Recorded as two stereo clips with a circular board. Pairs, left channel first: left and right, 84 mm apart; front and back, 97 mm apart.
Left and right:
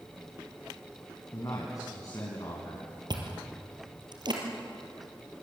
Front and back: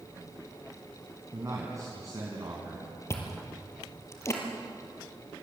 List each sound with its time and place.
1.3 s a man speaking: 130° left, 4 m
3.1 s chewing: 60° right, 3.5 m